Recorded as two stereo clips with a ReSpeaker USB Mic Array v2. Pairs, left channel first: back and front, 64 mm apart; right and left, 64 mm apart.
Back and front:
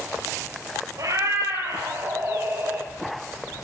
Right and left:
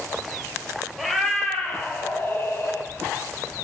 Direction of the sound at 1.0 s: Straight ahead.